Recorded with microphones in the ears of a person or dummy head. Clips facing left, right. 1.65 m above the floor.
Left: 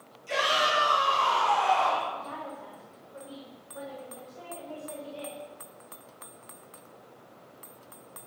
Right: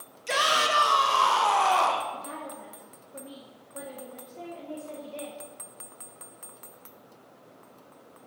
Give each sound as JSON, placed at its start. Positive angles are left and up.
{"t": 0.3, "sound": "a shout", "side_deg": -80, "distance_m": 2.5}
{"t": 2.1, "sound": "a woman speaking", "side_deg": -30, "distance_m": 1.3}